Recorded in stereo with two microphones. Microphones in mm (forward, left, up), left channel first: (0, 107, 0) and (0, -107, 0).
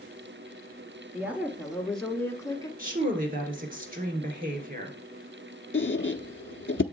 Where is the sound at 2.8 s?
40° right (ahead or behind), 2.0 m.